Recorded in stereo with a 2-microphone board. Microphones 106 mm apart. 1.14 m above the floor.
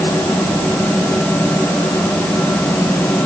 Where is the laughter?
I don't hear laughter.